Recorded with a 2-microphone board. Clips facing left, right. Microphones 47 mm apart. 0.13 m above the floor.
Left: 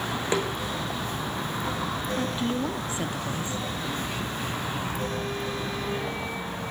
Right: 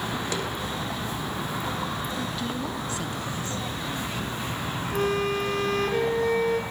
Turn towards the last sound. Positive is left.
turn(degrees=-75)  # may be behind; listen again after turning